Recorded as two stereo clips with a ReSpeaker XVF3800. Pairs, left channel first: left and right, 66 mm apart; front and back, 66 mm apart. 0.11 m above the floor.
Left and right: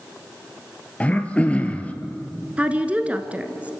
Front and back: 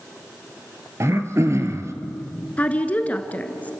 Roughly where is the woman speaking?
Ahead right.